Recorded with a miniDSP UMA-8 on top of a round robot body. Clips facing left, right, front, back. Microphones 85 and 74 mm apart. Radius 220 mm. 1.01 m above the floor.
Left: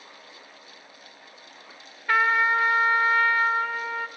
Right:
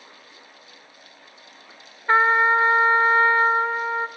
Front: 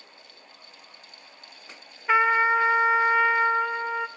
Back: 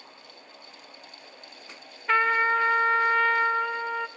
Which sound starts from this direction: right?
A trumpet, at 2.1 s.